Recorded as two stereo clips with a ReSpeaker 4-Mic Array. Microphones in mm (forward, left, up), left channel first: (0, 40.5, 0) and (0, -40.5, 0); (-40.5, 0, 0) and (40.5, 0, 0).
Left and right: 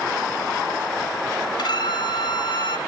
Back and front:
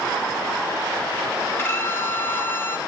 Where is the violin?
120° left, 1.0 m.